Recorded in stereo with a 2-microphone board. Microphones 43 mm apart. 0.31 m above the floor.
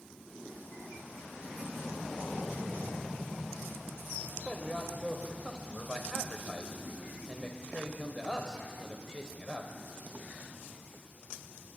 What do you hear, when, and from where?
4.5 s a man speaking: 15° left (ahead or behind), 1.3 m